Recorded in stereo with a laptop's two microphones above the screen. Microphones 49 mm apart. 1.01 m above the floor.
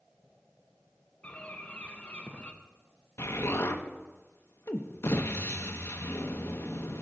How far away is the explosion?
About 0.8 m.